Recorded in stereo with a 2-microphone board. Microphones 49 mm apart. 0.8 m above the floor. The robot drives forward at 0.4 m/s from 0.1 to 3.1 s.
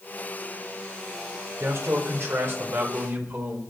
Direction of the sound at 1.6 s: 65° right (ahead or behind).